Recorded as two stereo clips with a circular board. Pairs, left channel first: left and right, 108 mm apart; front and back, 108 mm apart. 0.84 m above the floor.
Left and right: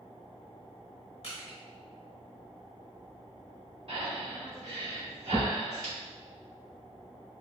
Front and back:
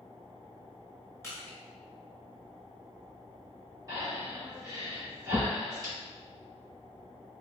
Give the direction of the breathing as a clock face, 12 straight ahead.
4 o'clock.